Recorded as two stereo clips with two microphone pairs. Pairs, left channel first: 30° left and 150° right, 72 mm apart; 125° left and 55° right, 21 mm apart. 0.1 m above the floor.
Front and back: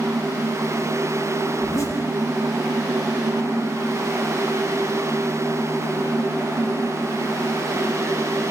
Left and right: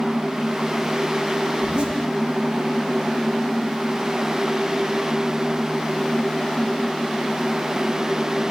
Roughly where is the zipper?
Ahead.